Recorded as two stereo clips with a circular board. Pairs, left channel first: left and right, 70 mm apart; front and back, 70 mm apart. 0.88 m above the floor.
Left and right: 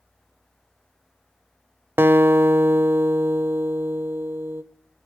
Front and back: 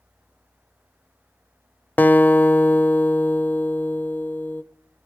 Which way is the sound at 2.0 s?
50° right.